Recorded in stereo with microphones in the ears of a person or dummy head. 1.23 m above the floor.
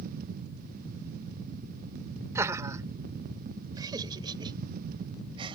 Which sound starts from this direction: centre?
Laughter, at 2.4 s.